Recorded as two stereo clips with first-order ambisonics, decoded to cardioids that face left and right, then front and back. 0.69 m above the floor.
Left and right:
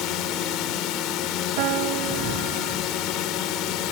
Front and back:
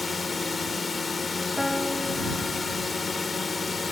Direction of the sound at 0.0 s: 75° left.